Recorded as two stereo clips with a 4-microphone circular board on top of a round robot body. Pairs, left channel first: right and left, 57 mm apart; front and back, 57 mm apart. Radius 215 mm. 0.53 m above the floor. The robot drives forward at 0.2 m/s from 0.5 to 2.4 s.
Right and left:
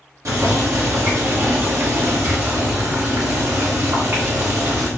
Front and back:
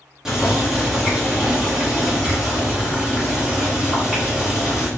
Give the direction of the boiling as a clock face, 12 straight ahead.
9 o'clock.